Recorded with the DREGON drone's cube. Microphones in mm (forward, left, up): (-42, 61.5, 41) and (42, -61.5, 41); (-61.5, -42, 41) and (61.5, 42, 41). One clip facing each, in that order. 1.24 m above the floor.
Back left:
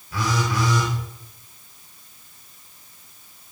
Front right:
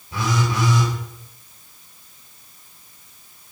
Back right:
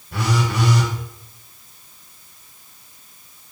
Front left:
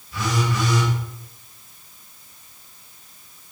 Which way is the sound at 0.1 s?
120° right.